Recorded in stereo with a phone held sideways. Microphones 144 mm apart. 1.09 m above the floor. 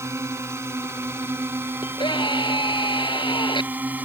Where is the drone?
20° right (ahead or behind); by 4.1 s 10° right (ahead or behind).